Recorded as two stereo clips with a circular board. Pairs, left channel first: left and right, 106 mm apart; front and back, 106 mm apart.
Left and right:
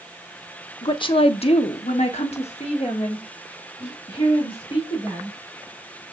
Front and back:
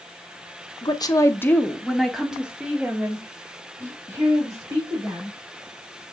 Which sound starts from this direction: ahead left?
A woman speaking, at 0.8 s.